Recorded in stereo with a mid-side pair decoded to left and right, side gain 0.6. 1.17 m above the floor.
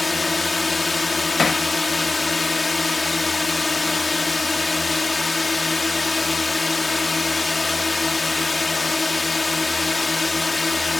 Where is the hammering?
25° left.